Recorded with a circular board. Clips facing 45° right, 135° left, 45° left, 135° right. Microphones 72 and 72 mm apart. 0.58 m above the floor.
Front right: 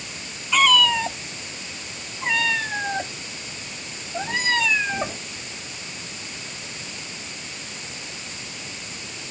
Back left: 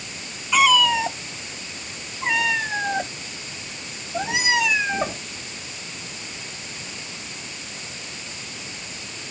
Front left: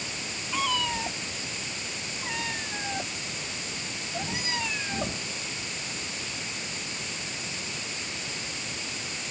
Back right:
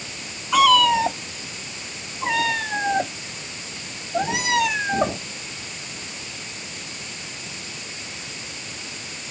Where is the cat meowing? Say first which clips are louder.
Back left 1 dB, back right 14 dB; 140° right; by 5.2 s 145° right.